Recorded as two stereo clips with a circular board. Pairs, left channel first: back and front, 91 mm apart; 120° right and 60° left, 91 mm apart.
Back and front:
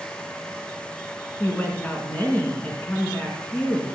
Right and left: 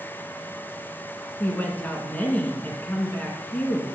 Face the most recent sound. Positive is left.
turn(degrees=-150)